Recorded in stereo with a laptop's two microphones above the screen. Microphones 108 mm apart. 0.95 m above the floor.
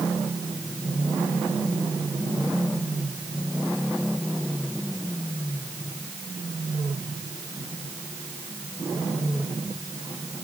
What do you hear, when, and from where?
Only background noise.